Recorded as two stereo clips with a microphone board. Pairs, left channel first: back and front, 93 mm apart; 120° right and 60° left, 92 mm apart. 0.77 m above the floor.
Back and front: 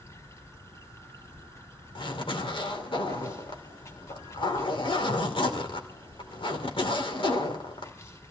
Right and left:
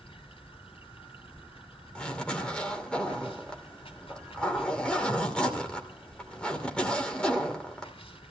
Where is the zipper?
160° left, 2.5 m.